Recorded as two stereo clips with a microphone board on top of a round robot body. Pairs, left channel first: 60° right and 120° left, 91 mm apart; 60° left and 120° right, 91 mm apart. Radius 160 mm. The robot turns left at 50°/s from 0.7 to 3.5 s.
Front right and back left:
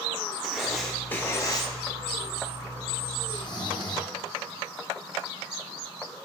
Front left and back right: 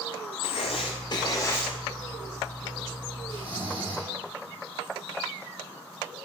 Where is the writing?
35° left, 0.5 m; by 1.7 s 15° right, 0.5 m.